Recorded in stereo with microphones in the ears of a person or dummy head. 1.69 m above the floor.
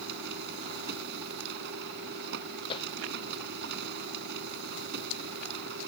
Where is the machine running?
60° right (ahead or behind).